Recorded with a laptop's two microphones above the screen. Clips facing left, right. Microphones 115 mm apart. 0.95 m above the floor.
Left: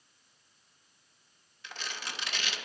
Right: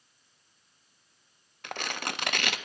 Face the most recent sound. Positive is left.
turn(degrees=-60)  # may be behind; listen again after turning